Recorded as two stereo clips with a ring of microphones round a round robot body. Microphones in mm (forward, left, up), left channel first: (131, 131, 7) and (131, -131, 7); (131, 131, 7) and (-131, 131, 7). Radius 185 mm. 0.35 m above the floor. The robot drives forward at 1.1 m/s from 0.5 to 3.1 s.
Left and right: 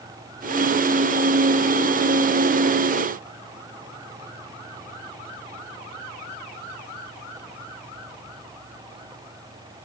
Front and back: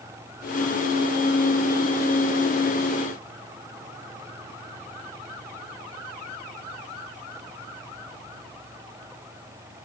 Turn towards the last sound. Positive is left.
No sound to turn to.